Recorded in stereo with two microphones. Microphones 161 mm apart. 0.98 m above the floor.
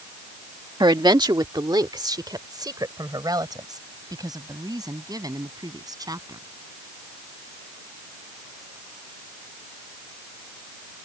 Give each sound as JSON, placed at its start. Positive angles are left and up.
{"t": 0.8, "sound": "a woman speaking", "side_deg": -30}